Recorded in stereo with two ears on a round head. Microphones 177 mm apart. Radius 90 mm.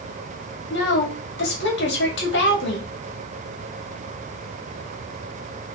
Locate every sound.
0.7 s a woman speaking: 60° left (ahead or behind), 2.0 m